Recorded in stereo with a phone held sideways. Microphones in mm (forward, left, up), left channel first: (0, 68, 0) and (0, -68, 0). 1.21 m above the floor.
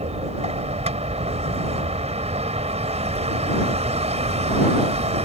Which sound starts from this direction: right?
A vehicle, at 0.0 s.